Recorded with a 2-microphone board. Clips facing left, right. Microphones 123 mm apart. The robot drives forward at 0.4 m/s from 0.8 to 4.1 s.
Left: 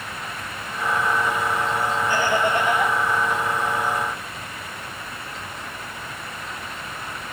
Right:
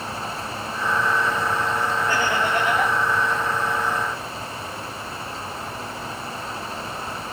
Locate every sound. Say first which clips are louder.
2.1 s laughter: left 3 dB; 65° right (ahead or behind), 6 m; by 2.9 s 60° right (ahead or behind), 6 m